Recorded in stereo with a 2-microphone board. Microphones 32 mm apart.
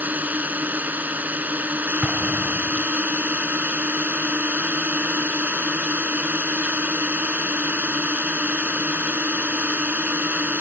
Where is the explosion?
30° right (ahead or behind).